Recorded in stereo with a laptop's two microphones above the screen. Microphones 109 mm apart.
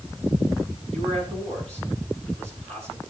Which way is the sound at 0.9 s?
85° right.